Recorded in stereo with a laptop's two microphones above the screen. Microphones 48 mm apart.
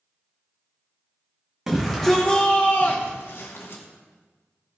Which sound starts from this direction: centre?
A shout, at 1.7 s.